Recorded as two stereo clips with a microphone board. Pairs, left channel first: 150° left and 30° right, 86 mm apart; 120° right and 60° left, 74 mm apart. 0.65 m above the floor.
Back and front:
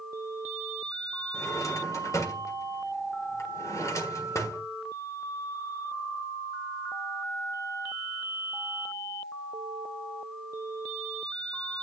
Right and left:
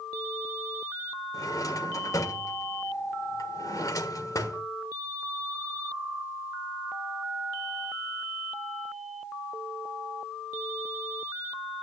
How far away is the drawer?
About 1.5 m.